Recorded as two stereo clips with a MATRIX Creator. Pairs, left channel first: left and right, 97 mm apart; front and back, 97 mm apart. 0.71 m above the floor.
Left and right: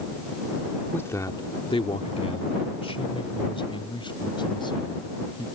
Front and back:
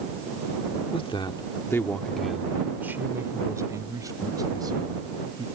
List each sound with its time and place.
0.9 s a man speaking: 20° left; by 5.5 s 135° left